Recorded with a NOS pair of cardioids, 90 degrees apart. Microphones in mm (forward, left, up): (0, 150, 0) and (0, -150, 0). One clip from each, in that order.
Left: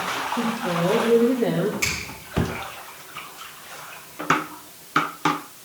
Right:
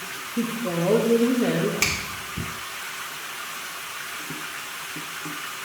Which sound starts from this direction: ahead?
A woman speaking, at 0.4 s.